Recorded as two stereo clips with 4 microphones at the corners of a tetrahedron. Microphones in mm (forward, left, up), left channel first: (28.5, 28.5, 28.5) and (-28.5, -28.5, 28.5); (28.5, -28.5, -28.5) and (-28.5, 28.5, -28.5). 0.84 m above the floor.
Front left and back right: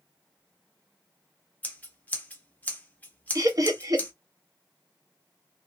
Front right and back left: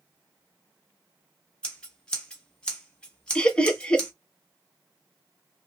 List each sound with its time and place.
1.6 s scissors: 10° left, 0.9 m
3.4 s laughter: 115° right, 0.9 m